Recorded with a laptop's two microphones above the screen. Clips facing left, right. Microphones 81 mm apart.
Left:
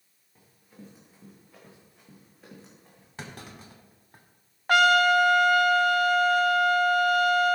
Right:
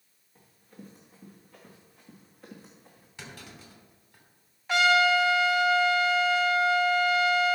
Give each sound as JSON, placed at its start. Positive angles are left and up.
{"t": 0.3, "sound": "running footsteps", "side_deg": 10, "distance_m": 4.0}
{"t": 3.2, "sound": "a clunk", "side_deg": 50, "distance_m": 2.5}
{"t": 4.7, "sound": "a trumpet", "side_deg": 55, "distance_m": 0.7}